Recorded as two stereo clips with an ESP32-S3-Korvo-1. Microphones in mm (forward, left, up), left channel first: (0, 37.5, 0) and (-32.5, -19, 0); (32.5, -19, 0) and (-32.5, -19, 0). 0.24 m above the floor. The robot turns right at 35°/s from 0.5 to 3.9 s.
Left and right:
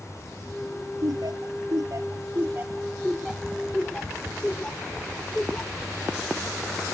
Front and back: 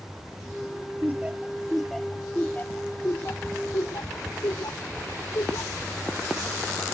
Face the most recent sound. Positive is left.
turn(degrees=-15)